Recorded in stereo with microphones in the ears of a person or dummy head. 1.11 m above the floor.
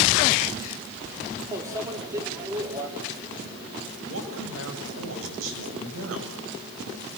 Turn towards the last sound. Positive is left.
turn(degrees=-85)